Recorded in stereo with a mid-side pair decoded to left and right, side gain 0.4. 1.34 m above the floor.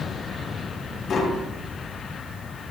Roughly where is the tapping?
Ahead left.